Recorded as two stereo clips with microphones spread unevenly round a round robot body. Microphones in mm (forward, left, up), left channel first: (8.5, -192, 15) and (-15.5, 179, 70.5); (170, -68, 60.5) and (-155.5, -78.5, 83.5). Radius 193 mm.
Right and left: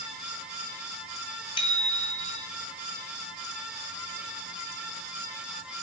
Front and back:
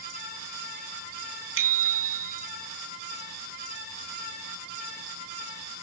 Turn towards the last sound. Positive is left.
turn(degrees=-160)